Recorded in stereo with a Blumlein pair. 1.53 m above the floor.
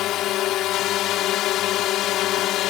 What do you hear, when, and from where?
0.0 s a drone: 35° left